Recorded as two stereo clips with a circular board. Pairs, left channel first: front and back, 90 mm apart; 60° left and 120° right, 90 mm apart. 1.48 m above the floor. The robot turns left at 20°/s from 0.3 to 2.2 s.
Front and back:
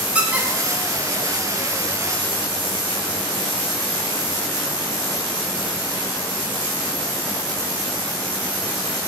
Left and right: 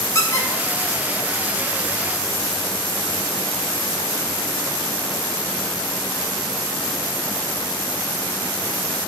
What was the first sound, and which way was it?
A squeak, 105° left.